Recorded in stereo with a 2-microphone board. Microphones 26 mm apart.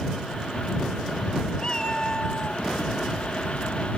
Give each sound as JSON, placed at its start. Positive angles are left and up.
{"t": 1.6, "sound": "a cat meowing", "side_deg": 25}